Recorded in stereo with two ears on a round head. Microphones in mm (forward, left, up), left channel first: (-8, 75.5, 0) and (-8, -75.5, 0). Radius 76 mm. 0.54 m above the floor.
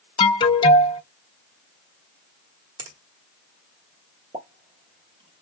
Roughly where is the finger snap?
Right.